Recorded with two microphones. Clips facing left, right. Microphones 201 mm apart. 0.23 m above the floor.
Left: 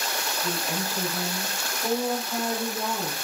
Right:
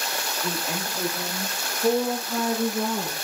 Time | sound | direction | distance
0.4 | a woman speaking | 20° right (ahead or behind) | 6 m